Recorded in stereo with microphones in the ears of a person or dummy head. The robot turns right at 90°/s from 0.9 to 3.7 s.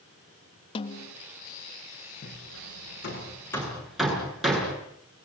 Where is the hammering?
45° left (ahead or behind), 7.5 m; by 4.8 s 5° left (ahead or behind), 7.5 m.